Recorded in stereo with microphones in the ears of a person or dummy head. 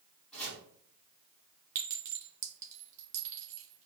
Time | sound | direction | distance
0.3 | chopping | 5° left (ahead or behind) | 1.7 m
1.8 | a clink | 40° right (ahead or behind) | 1.0 m